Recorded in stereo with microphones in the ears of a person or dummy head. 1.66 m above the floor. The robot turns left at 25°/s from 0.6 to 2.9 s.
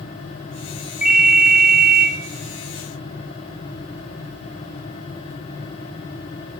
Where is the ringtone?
Centre (ahead or behind), 0.5 m; by 2.1 s 10° right (ahead or behind), 0.5 m.